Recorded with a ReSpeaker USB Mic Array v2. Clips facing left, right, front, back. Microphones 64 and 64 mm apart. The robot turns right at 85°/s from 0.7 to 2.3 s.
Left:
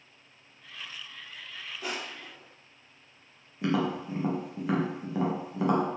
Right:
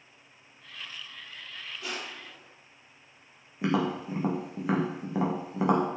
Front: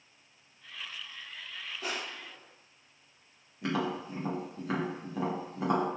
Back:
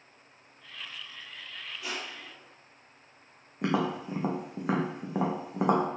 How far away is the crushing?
About 4 m.